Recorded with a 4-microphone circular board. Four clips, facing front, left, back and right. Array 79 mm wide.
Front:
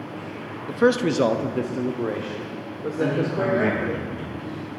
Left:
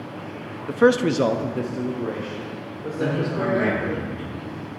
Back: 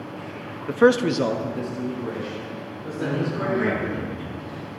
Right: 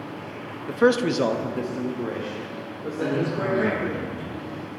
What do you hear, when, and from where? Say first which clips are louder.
0.7 s a man speaking: left 2 dB, back 2 dB; 165° left, 0.6 m; by 4.0 s straight ahead, 2.5 m
3.0 s a man speaking: left 1 dB, front 3 dB; 30° left, 5 m